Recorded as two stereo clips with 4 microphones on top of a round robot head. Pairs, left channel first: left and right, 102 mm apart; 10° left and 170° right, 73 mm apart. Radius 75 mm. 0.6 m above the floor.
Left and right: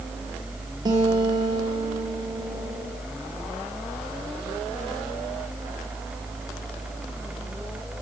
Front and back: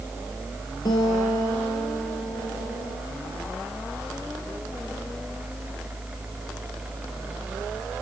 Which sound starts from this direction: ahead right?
A guitar, at 0.8 s.